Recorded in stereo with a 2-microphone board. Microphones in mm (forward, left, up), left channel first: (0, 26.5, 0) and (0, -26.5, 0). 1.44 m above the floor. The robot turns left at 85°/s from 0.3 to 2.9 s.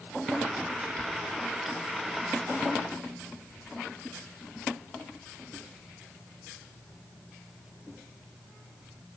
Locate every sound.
Only background noise.